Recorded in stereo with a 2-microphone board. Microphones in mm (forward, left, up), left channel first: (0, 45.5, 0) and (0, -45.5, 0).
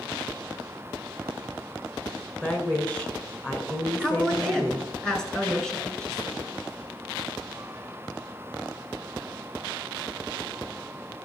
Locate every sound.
2.4 s a woman speaking: 15° left (ahead or behind), 1.6 m
4.0 s a woman speaking: 10° left (ahead or behind), 1.7 m